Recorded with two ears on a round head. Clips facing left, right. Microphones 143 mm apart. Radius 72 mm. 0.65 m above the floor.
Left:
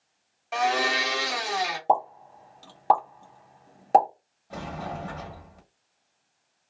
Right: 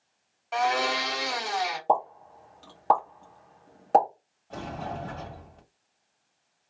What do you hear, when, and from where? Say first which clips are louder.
0.5 s a blender: left 1 dB; 10° left (ahead or behind), 1.4 m
1.9 s a pop: left 2 dB; 15° left (ahead or behind), 1.3 m
4.5 s a sliding door: even; 10° left (ahead or behind), 1.2 m